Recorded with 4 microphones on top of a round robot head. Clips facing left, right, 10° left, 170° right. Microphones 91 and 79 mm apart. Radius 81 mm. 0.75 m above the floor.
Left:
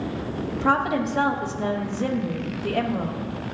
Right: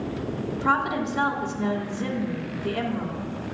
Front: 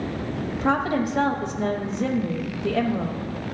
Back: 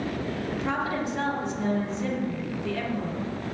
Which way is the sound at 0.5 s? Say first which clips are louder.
Left 2 dB, front 7 dB; 45° left.